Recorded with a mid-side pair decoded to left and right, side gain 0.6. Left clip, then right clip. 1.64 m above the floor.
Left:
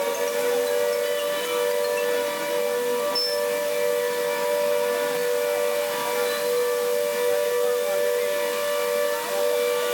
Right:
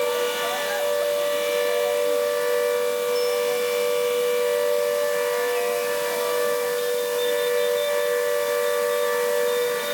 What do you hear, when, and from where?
Only background noise.